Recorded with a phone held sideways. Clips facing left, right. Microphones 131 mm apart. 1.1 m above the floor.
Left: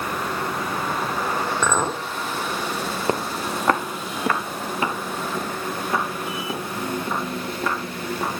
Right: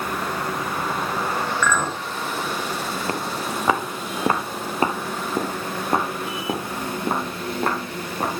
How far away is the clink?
About 1.4 m.